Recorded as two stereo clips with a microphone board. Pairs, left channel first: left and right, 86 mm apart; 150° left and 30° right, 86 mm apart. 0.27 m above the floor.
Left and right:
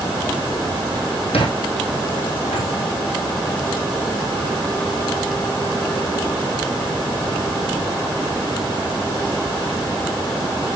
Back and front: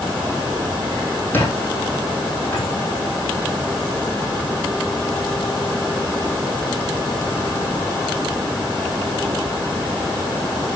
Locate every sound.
1.3 s a squeak: 85° left, 3 m